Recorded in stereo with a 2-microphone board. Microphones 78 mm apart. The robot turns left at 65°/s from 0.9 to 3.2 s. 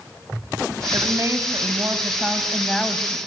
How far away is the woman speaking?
About 1.8 m.